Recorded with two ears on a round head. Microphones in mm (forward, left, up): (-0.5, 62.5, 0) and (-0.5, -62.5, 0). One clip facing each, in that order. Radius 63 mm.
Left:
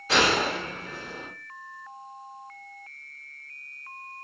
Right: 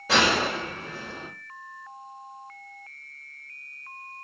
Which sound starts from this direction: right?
A gunshot, at 0.1 s.